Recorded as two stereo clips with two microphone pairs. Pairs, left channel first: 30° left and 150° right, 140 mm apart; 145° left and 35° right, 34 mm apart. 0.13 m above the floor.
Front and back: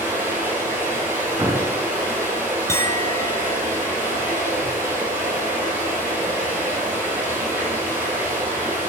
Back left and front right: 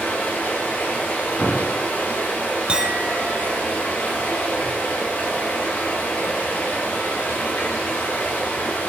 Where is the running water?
135° left, 9 m.